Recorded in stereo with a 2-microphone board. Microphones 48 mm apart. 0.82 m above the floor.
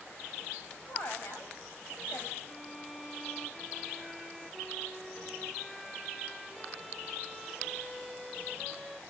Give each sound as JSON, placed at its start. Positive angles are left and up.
{"t": 0.9, "sound": "a woman speaking", "side_deg": 50, "distance_m": 4.0}
{"t": 2.4, "sound": "a violin", "side_deg": 10, "distance_m": 2.5}